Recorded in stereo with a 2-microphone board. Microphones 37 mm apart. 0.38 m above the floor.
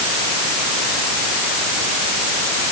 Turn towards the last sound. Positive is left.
No sound to turn to.